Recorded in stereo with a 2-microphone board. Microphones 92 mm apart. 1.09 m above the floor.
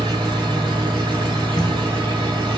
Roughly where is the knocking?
Left.